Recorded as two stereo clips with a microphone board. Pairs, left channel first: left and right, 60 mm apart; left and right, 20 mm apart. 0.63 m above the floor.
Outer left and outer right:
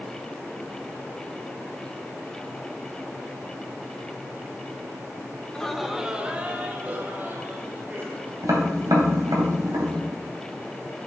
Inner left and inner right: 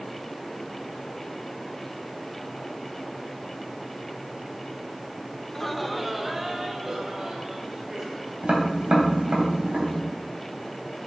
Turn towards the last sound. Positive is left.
turn(degrees=-70)  # may be behind; listen again after turning